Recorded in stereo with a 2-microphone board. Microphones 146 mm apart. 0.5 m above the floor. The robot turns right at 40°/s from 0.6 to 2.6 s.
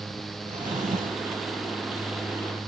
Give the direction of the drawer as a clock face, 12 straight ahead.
4 o'clock.